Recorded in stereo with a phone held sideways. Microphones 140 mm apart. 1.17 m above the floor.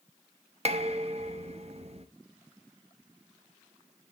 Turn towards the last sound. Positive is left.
turn(degrees=-50)  # may be behind; listen again after turning